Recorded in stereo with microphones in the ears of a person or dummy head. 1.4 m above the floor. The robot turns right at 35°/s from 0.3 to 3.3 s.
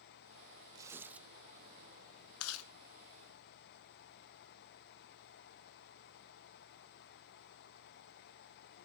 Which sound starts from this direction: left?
Chewing, at 2.4 s.